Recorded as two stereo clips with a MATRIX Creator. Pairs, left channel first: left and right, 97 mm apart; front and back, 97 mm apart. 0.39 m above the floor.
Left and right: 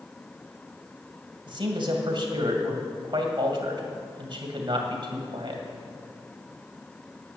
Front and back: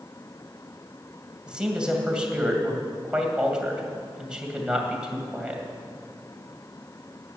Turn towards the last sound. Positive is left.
turn(degrees=-100)